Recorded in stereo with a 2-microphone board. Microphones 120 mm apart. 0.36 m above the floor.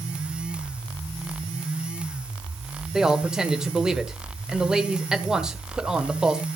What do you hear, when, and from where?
2.9 s a man speaking: 5° right (ahead or behind), 1.1 m